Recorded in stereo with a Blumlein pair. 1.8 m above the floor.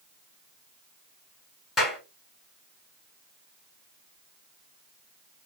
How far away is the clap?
About 2.5 m.